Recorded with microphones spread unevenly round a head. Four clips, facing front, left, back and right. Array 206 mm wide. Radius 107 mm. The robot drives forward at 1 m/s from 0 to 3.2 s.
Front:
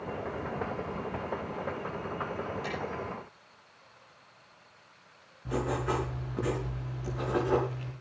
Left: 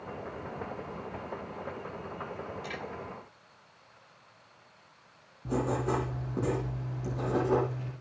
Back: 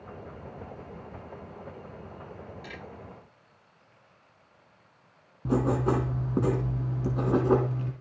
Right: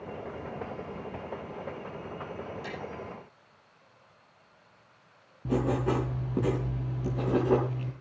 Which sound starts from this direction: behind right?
Writing, at 5.5 s.